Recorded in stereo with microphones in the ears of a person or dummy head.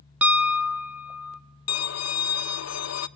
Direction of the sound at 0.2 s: Centre (ahead or behind).